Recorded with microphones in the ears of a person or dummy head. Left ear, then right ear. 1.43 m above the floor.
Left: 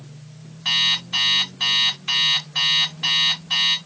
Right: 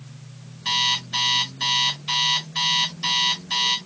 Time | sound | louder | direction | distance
0.7 | an alarm clock | left 2 dB | 30° left (ahead or behind) | 1.9 m